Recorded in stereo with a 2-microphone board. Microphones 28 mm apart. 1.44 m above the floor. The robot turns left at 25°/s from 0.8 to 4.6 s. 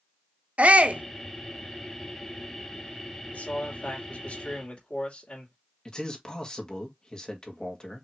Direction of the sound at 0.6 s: 55° right (ahead or behind).